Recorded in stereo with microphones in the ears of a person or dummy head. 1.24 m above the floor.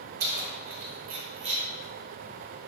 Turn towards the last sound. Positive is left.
turn(degrees=-30)  # may be behind; listen again after turning